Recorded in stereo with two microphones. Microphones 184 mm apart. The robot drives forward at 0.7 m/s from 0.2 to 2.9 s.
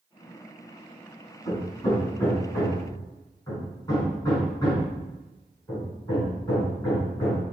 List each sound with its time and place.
1.4 s hammering: 25° left (ahead or behind), 4.5 m; by 7.4 s 20° left (ahead or behind), 5 m